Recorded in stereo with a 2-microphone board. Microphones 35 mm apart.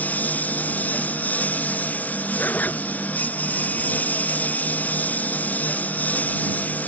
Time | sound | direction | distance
0.0 | a lawn mower | 50° left (ahead or behind) | ?
2.4 | a zipper | 55° left (ahead or behind) | ?